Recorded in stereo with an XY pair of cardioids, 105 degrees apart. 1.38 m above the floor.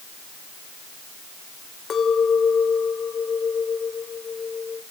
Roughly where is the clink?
Ahead left.